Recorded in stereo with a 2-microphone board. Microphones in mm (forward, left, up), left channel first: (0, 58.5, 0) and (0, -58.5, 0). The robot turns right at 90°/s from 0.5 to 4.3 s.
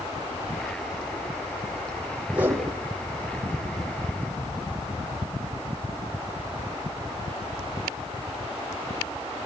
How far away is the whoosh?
About 6.5 m.